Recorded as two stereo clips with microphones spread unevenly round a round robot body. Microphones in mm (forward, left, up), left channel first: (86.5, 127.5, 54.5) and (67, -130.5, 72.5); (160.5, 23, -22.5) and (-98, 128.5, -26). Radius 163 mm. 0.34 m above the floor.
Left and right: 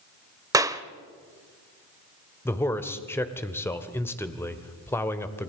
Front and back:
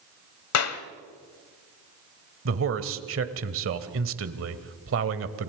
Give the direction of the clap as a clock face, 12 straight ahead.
1 o'clock.